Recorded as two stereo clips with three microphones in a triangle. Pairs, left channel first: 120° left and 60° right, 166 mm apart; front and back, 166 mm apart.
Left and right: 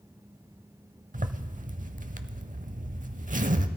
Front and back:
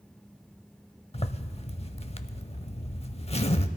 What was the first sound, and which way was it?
A zipper, 45° right.